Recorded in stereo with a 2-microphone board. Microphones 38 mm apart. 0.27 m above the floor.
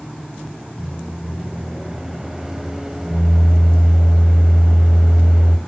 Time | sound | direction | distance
0.8 | a microwave | 15° right (ahead or behind) | 0.8 m